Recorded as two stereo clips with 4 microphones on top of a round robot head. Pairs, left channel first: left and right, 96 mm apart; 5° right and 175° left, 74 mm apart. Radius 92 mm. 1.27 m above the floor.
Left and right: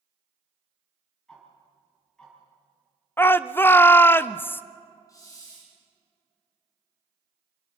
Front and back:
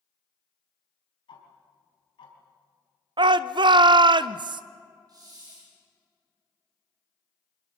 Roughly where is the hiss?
Behind left.